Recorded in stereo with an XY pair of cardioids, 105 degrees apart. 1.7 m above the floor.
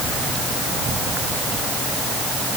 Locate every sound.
Only background noise.